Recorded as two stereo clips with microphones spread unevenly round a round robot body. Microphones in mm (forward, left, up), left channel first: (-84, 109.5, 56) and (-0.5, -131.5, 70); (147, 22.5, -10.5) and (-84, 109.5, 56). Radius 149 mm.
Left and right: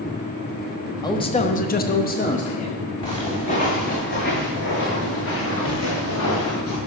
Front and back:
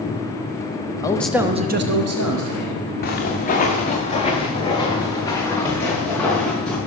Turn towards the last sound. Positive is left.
turn(degrees=70)